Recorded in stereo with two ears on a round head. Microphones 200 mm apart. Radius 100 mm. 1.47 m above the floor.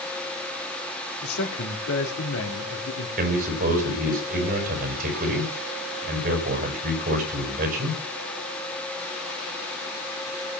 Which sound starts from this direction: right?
A man speaking, at 3.2 s.